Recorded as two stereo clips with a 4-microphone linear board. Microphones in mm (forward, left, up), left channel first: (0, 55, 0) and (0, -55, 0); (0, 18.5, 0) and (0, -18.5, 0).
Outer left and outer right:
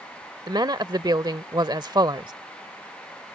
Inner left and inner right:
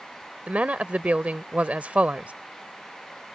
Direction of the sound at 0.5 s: 40° right (ahead or behind).